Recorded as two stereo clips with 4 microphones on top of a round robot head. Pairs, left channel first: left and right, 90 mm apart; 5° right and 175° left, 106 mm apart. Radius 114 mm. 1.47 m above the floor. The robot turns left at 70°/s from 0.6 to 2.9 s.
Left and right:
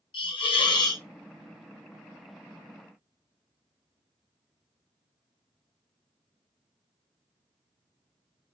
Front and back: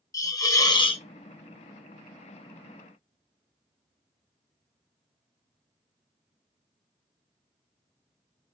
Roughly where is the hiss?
Ahead left.